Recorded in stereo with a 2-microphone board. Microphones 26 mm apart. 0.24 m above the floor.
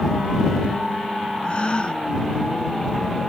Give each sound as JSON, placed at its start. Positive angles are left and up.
{"t": 1.4, "sound": "a gasp", "side_deg": 45}